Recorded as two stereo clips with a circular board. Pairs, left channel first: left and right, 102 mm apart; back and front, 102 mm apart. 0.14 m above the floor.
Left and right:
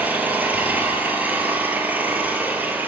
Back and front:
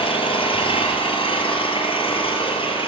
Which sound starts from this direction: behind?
An engine running, at 0.0 s.